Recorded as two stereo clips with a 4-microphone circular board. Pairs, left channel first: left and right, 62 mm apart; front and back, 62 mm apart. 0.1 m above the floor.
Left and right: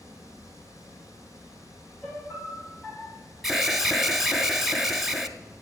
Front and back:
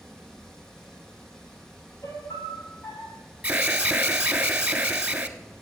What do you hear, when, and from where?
0.0 s running water: 80° left, 3 m
2.0 s a piano: 20° left, 3.5 m
3.4 s an alarm: 165° right, 0.9 m